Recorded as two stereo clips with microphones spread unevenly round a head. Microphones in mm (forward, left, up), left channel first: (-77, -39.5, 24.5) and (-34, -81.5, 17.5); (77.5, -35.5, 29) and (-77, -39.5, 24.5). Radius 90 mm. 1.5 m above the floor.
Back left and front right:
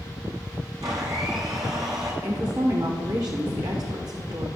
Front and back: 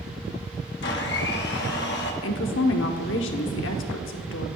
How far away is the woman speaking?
About 1.0 m.